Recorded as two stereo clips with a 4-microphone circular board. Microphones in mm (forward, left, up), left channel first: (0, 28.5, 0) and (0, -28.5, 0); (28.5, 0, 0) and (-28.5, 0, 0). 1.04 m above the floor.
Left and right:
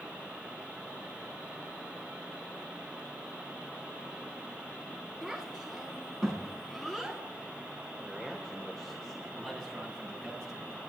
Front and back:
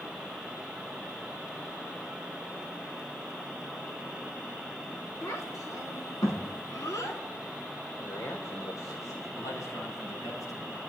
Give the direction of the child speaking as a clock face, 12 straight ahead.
12 o'clock.